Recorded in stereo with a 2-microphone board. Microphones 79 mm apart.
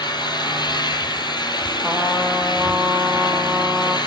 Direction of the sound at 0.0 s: 65° left (ahead or behind).